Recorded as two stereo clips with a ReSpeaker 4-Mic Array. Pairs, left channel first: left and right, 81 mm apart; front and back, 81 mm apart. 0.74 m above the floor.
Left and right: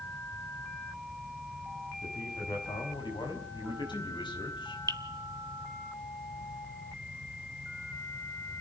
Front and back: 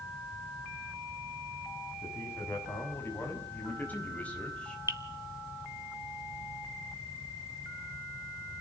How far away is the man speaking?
About 6 m.